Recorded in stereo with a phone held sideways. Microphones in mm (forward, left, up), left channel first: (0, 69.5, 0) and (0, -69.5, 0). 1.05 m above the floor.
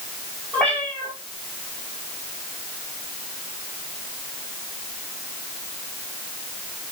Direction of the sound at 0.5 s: 5° left (ahead or behind).